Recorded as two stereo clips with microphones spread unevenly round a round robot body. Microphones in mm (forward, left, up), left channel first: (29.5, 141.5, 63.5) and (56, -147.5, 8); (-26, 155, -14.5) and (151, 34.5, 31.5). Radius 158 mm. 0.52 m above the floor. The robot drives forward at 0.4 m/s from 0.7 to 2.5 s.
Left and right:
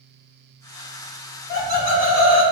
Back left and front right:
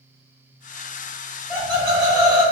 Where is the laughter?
155° right, 1.7 m; by 2.4 s 160° right, 2.0 m.